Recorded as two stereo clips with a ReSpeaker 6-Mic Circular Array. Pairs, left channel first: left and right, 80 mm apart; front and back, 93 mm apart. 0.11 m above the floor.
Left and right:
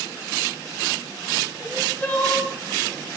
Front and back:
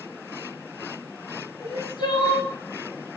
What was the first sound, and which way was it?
Crying, 20° left.